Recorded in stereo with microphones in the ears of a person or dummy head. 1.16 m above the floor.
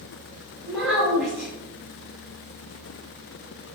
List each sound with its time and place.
0.7 s a child speaking: centre (ahead or behind), 1.1 m